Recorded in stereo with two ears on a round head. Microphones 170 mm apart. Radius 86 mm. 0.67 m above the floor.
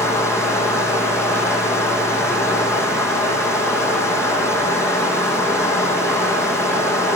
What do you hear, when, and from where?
0.0 s running water: 15° left (ahead or behind), 6 m